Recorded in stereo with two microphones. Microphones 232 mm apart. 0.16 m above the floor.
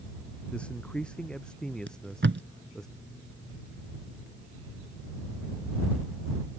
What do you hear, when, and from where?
0.5 s a man speaking: 5° left (ahead or behind); by 2.9 s centre (ahead or behind)
1.9 s tape being pulled: 55° right (ahead or behind)